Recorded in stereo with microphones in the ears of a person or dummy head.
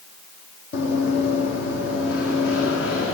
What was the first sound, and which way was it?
Running footsteps, 65° left (ahead or behind).